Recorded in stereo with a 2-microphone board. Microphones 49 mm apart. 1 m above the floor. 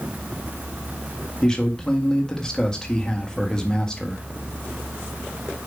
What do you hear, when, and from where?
1.4 s a man speaking: 15° left (ahead or behind), 1.6 m